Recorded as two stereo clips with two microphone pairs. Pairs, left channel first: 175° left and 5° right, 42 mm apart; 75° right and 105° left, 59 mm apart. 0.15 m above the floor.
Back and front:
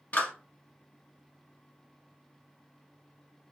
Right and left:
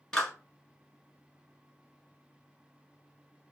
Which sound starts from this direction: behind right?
A clap, at 0.1 s.